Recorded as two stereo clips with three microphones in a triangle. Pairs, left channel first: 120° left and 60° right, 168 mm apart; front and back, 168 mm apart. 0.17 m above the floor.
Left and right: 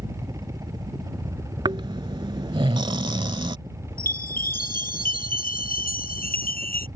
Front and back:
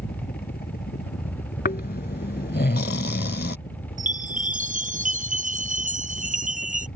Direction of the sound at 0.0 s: 5° left.